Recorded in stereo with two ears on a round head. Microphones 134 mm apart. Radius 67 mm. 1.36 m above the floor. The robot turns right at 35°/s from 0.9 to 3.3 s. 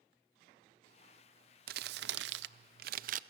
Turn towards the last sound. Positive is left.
turn(degrees=-50)